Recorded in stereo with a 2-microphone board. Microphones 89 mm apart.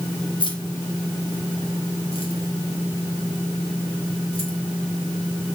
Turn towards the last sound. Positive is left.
turn(degrees=90)